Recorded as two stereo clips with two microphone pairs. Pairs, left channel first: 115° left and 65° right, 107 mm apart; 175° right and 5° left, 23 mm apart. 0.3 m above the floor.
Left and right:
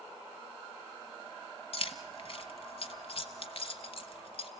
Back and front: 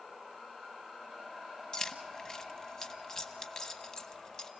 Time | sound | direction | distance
1.7 | keys jangling | 135° left | 1.2 m